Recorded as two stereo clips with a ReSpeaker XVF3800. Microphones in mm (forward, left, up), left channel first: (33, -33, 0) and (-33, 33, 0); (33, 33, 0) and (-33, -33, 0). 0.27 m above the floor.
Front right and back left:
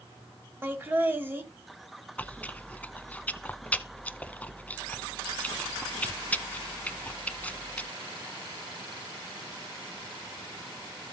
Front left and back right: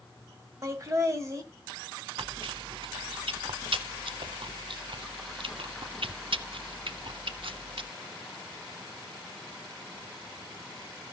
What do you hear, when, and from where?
0.6 s laughter: 170° right, 1.8 m
2.2 s chewing: 120° right, 0.5 m